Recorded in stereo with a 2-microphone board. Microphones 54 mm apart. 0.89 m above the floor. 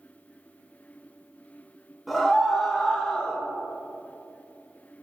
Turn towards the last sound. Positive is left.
turn(degrees=25)  # may be behind; listen again after turning